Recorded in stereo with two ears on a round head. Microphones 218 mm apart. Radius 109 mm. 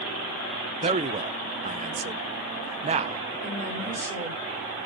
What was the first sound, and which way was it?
A man speaking, 25° right (ahead or behind).